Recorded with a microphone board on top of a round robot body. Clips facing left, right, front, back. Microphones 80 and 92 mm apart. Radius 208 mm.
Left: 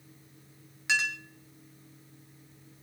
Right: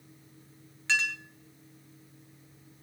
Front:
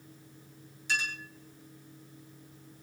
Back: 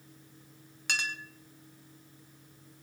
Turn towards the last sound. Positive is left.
turn(degrees=165)